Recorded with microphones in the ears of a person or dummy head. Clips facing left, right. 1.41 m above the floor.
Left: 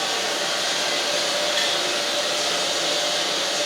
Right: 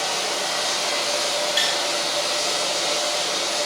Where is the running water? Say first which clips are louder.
Even; 20° left (ahead or behind), 0.8 m.